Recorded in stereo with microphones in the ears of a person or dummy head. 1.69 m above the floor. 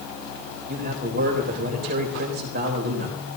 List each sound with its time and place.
0.7 s a man speaking: 55° right (ahead or behind), 3.5 m